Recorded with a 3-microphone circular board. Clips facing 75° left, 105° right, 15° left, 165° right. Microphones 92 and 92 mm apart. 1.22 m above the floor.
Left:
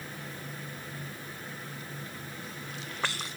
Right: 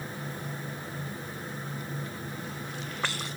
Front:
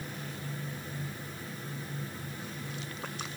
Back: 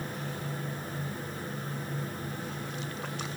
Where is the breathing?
I don't hear breathing.